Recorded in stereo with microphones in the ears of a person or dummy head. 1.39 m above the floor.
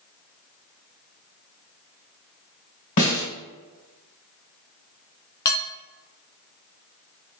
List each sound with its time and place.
3.0 s a snare drum: 40° left (ahead or behind), 1.7 m
5.5 s dishes clattering: 15° left (ahead or behind), 0.5 m